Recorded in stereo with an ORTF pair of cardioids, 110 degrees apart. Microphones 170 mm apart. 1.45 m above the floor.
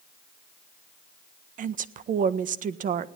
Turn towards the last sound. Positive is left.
turn(degrees=-50)